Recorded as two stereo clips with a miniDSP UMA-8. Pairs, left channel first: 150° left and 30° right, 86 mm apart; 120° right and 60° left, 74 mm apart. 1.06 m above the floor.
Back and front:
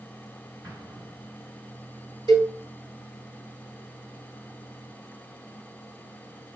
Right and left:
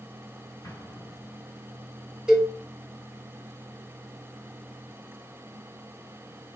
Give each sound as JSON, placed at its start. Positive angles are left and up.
{"t": 0.6, "sound": "an explosion", "azimuth_deg": -75, "distance_m": 2.5}
{"t": 2.3, "sound": "a cowbell", "azimuth_deg": -20, "distance_m": 1.4}